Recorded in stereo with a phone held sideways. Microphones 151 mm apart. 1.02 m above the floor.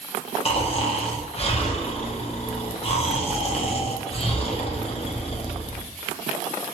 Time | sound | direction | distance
0.5 | snoring | 40° left (ahead or behind) | 0.6 m